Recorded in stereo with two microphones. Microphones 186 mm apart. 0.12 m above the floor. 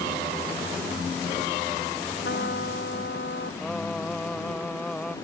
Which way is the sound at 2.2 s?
80° left.